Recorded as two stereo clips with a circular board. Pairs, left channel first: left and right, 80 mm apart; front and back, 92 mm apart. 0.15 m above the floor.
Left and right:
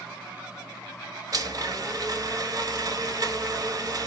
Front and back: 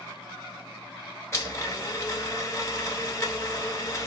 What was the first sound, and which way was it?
A blender, 55° right.